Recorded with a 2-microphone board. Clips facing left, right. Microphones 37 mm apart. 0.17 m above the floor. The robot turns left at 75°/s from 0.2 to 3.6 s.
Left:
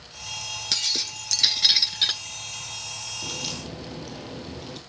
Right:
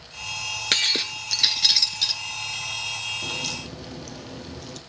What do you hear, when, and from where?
0.7 s breaking glass: 115° right, 0.7 m; by 2.2 s 130° left, 0.7 m
3.2 s a crack: 15° right (ahead or behind), 1.7 m; by 4.8 s 15° left (ahead or behind), 1.7 m